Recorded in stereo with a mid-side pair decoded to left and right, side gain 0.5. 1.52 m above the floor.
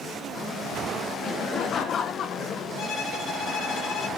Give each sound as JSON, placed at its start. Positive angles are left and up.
{"t": 1.2, "sound": "laughter", "azimuth_deg": 55, "distance_m": 0.5}
{"t": 2.8, "sound": "a violin", "azimuth_deg": 65, "distance_m": 2.0}